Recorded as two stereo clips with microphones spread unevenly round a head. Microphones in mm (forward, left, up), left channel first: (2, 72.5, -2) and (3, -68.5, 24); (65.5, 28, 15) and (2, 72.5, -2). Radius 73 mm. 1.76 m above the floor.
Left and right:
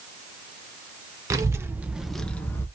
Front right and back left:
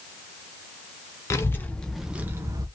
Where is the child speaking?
40° right, 0.9 m; by 2.6 s 165° left, 0.7 m.